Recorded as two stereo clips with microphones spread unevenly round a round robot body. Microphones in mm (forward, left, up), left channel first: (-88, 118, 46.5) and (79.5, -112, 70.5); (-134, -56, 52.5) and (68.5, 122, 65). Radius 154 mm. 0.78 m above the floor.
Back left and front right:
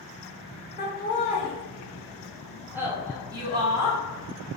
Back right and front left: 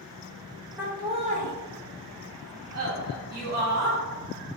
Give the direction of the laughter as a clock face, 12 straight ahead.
8 o'clock.